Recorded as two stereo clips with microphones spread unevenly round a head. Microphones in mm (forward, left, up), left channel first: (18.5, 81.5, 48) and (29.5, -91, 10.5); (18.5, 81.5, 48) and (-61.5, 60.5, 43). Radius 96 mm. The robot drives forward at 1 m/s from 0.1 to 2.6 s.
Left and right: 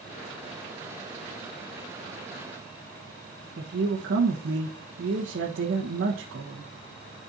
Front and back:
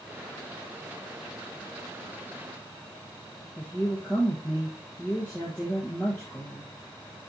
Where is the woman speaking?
65° right, 1.3 m.